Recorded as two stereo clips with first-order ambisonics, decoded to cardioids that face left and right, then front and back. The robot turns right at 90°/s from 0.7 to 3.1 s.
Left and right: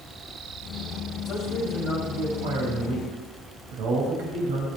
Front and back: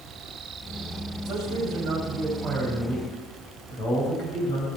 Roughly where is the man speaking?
Behind left.